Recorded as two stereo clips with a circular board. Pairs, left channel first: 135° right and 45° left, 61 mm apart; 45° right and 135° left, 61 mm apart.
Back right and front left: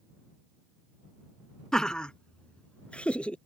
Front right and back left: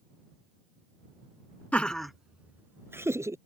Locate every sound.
1.7 s laughter: 70° right; by 3.4 s 155° left